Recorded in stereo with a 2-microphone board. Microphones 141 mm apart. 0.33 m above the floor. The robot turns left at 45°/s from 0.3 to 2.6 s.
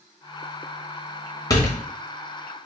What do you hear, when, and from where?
1.5 s a door slam: 30° left (ahead or behind), 1.1 m; by 1.8 s 20° left (ahead or behind), 1.1 m